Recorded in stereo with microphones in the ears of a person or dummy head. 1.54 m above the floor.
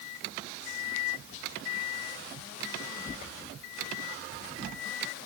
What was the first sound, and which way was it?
Only background noise.